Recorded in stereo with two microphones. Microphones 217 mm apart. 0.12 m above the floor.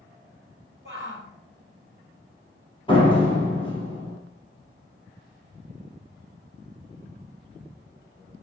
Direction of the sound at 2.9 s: 20° left (ahead or behind).